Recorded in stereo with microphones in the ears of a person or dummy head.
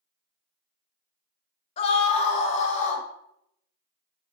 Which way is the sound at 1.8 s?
30° left (ahead or behind).